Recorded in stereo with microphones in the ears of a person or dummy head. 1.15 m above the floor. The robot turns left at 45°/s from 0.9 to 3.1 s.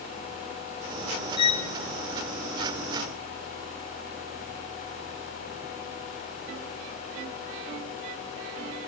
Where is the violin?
20° left (ahead or behind), 0.6 m; by 1.7 s 25° left (ahead or behind), 0.6 m.